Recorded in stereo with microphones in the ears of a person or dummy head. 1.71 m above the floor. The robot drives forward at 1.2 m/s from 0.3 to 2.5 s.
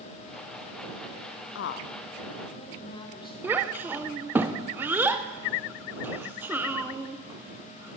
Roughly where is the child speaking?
Centre.